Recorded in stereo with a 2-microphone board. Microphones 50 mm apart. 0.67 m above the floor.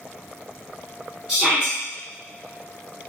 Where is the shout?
20° right (ahead or behind), 1.6 m.